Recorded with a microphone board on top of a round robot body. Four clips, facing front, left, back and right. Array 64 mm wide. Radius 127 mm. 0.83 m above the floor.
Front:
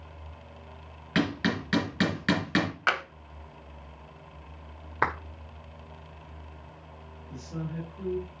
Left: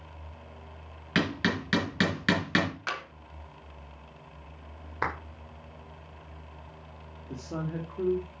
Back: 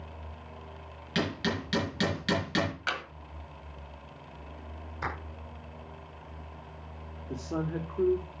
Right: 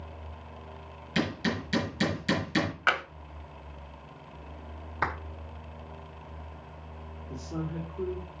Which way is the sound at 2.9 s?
45° right.